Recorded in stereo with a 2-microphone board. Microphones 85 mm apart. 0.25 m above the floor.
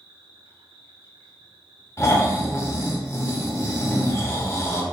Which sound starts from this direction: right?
An insect, at 0.0 s.